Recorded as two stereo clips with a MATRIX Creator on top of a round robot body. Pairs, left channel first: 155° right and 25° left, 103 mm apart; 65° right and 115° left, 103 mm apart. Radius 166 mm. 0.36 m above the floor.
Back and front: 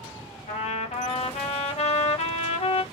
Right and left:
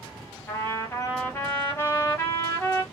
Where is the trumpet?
140° right, 0.6 m.